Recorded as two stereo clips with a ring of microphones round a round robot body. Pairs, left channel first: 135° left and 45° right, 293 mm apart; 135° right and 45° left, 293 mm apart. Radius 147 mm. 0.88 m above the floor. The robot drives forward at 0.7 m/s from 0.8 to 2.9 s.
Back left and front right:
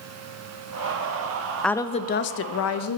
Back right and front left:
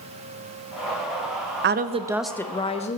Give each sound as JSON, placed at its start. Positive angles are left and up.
{"t": 1.6, "sound": "a woman speaking", "azimuth_deg": 50, "distance_m": 0.6}